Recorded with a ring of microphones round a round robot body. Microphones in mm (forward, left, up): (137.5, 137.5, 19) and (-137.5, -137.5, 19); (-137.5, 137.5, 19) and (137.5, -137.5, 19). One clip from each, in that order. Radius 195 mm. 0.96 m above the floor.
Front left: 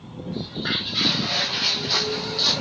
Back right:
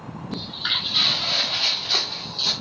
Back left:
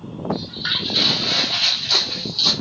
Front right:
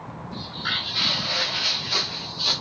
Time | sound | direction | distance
0.3 | footsteps | 155° right | 1.5 m